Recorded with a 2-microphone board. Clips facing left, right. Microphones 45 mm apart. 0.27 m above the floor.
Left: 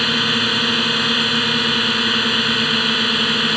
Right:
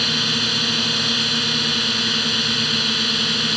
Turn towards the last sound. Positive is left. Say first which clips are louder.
# left 4 dB
turn(degrees=25)  # may be behind; listen again after turning